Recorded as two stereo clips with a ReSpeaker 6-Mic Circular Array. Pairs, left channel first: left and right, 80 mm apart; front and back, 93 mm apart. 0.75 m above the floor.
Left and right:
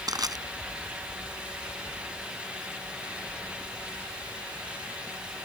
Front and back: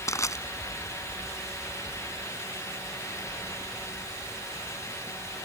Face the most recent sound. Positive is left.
turn(degrees=-55)